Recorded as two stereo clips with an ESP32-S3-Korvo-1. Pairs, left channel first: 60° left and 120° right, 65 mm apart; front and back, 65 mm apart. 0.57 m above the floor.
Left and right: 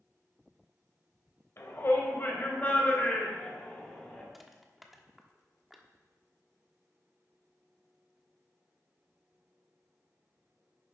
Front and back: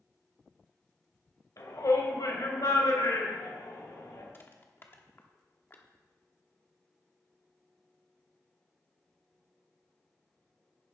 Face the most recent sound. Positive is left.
turn(degrees=-35)